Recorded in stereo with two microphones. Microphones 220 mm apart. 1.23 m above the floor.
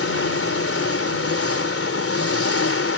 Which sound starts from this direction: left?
An engine running, at 0.0 s.